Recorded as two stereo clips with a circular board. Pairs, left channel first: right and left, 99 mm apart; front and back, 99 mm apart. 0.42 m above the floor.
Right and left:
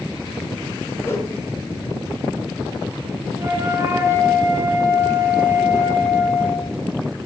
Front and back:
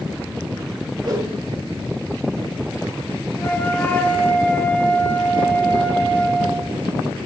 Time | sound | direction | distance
1.0 | a whoosh | 145° right | 2.5 m
3.4 | a flute | 60° left | 1.3 m